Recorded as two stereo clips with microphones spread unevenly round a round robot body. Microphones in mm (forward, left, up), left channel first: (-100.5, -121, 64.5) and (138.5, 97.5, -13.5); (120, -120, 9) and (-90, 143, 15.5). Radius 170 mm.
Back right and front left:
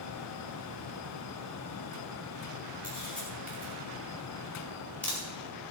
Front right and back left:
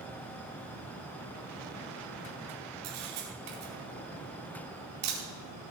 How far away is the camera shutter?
About 4.5 m.